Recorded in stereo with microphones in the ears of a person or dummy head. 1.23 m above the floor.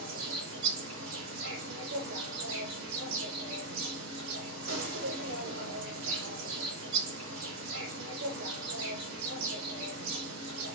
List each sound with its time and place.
0.0 s an insect: 80° right, 1.0 m